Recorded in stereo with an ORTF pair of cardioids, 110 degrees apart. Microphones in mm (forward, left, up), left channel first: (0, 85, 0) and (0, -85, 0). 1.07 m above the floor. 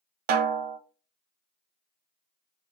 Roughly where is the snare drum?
Ahead right.